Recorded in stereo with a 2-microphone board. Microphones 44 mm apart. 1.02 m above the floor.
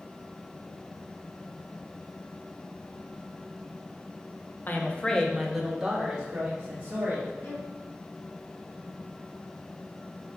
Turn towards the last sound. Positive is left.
turn(degrees=50)  # may be behind; listen again after turning